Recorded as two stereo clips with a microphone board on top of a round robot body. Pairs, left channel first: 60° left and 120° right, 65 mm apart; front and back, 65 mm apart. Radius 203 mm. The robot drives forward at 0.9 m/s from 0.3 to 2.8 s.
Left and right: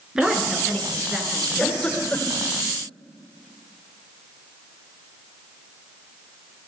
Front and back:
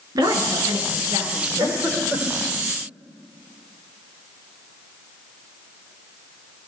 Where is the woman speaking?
160° left, 7 m; by 2.2 s 165° left, 8.5 m.